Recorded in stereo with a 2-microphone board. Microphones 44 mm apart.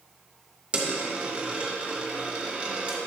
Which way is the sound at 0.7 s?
20° right (ahead or behind).